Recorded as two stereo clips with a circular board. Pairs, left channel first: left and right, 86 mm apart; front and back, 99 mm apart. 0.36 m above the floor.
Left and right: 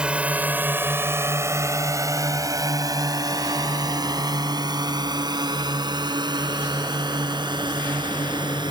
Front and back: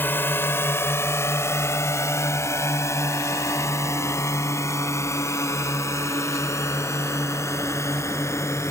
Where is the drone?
30° right; by 8.7 s 60° right.